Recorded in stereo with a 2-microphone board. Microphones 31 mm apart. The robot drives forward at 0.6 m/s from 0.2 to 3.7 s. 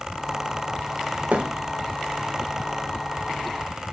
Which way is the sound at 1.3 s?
55° right (ahead or behind).